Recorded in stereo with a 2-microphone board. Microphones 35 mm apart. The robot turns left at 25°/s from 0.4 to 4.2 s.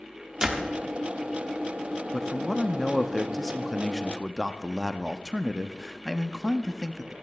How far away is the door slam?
About 1.1 m.